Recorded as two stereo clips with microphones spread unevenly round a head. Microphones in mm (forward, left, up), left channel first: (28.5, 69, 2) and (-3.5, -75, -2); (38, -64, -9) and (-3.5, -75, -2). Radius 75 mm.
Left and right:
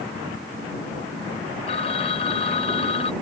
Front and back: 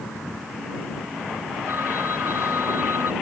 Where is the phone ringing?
130° left.